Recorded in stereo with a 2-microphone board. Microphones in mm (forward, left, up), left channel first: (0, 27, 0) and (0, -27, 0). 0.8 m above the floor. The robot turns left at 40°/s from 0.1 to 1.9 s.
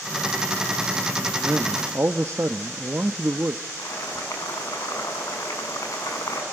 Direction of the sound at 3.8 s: 85° left.